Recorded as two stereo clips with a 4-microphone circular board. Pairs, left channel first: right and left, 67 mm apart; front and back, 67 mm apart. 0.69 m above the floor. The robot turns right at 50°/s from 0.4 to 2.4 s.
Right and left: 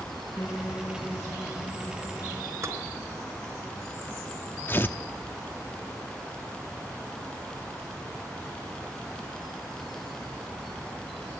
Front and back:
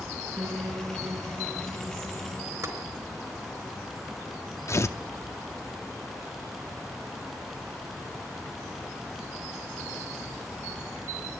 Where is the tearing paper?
35° right, 0.8 m.